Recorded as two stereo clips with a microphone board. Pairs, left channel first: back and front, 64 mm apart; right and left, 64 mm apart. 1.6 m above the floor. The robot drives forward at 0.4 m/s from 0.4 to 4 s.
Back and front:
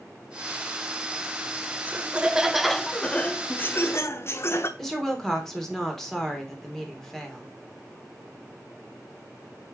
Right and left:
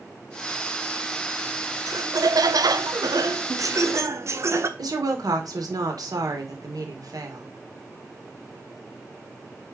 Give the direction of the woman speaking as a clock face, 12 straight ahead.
9 o'clock.